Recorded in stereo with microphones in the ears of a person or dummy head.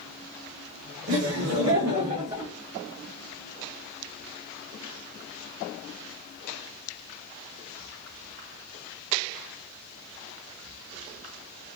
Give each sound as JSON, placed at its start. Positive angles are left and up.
{"t": 1.1, "sound": "laughter", "side_deg": -70, "distance_m": 1.3}